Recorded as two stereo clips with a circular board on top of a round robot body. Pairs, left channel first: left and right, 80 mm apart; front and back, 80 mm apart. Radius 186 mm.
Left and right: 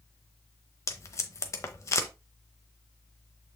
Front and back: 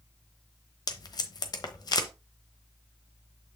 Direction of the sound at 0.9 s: 40° left.